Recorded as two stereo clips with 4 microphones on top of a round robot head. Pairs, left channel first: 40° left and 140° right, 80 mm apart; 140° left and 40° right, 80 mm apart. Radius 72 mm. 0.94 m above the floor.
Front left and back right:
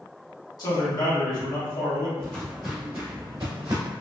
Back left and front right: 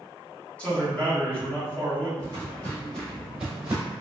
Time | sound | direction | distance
0.6 | a man speaking | 65° left | 1.8 m
2.2 | footsteps | 110° left | 1.1 m